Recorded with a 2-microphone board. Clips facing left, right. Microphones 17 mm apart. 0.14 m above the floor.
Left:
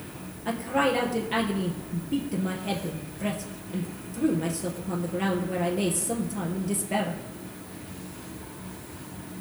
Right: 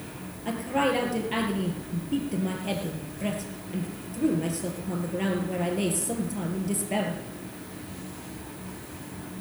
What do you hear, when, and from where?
0.5 s a woman speaking: centre (ahead or behind), 2.5 m